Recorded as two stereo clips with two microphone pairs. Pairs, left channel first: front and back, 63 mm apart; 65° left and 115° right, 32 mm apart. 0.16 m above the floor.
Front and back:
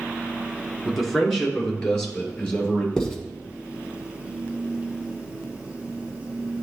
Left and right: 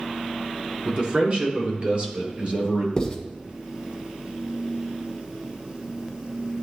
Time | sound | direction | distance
0.8 | a man speaking | 90° right | 2 m
3.0 | writing | 60° left | 1.4 m